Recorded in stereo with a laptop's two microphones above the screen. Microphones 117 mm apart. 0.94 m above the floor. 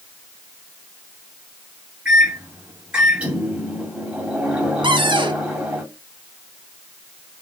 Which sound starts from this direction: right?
A cupboard door, at 4.8 s.